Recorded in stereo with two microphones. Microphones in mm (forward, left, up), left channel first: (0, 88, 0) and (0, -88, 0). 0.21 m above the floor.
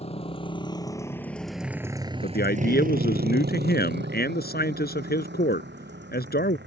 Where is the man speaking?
65° left (ahead or behind).